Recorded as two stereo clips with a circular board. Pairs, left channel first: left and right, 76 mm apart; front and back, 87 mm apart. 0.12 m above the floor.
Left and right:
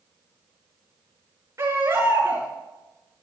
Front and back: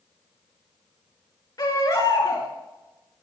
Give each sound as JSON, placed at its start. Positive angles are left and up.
{"t": 1.6, "sound": "a baby crying", "azimuth_deg": -40, "distance_m": 4.5}